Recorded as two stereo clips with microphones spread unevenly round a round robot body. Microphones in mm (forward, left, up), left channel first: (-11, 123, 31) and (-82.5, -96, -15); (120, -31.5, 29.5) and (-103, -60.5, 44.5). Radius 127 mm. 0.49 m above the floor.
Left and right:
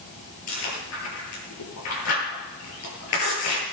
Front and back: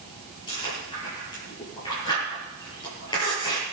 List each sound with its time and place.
0.5 s chewing: 80° left, 9 m